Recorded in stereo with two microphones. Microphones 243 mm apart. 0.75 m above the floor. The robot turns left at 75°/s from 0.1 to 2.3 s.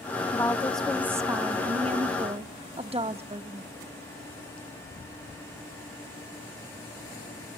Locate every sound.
0.3 s a woman speaking: 15° left (ahead or behind), 0.6 m; by 3.7 s 25° right (ahead or behind), 0.6 m